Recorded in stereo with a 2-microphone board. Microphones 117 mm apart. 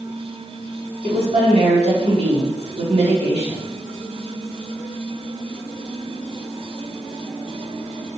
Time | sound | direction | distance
1.0 | a woman speaking | 70° right (ahead or behind) | 3.5 m